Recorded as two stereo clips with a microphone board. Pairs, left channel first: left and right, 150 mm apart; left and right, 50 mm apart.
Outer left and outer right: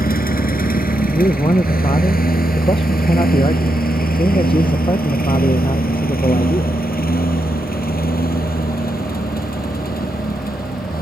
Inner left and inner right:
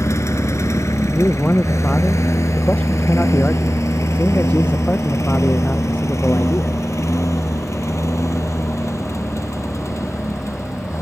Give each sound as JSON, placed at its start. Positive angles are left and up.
{"t": 0.0, "sound": "a lawn mower", "side_deg": 80}
{"t": 1.1, "sound": "a man speaking", "side_deg": 35}